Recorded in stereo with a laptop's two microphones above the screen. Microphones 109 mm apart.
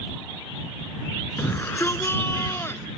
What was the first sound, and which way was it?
A shout, 20° left (ahead or behind).